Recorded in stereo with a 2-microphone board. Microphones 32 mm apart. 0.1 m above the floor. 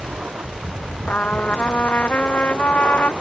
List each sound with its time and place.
0.0 s an aircraft: 55° right (ahead or behind)
1.1 s a trumpet: 60° left (ahead or behind)